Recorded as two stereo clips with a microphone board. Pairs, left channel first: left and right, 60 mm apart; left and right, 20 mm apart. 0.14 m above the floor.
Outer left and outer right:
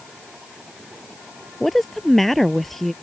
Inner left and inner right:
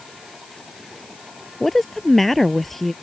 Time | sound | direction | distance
1.6 | a woman speaking | 5° left (ahead or behind) | ?